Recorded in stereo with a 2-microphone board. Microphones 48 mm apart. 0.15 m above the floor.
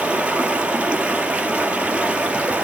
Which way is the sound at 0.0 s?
25° right (ahead or behind).